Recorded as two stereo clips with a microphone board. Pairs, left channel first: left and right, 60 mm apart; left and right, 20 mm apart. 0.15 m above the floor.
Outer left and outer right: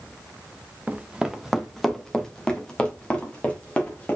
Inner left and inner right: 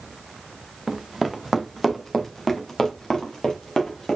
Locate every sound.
0.9 s running footsteps: 25° right (ahead or behind), 0.9 m; by 4.2 s 20° left (ahead or behind), 3 m